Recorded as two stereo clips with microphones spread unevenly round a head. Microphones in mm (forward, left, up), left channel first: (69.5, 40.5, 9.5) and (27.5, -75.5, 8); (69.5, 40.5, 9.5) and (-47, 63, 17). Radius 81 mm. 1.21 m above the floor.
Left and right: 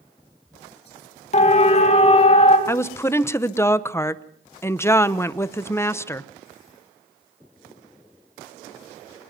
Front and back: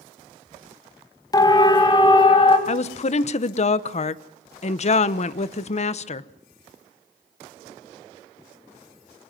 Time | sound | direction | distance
1.3 | a siren | 45° left | 2 m
2.7 | a woman speaking | straight ahead | 0.8 m